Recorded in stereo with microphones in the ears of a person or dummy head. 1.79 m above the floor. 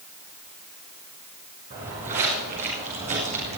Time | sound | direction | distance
1.7 | footsteps | 40° right (ahead or behind) | 5.5 m